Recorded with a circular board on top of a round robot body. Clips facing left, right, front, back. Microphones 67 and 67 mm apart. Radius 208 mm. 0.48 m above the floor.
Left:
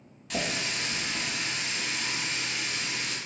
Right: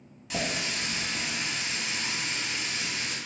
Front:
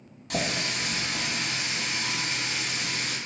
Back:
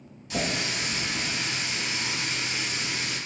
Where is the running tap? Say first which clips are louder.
Even, even; 5° right, 1.0 m.